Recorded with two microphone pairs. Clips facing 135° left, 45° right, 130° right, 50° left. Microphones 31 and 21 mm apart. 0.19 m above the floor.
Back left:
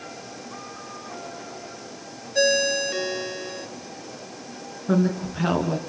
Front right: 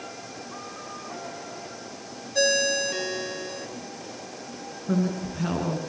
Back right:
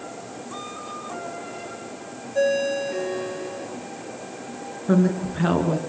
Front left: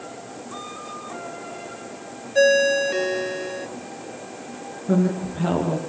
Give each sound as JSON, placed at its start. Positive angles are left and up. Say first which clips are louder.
{"t": 2.4, "sound": "a ringtone", "louder": "back left 2 dB, front left 5 dB", "azimuth_deg": 60, "distance_m": 1.5}
{"t": 4.9, "sound": "a woman speaking", "louder": "back left 4 dB, back right 1 dB", "azimuth_deg": -170, "distance_m": 2.5}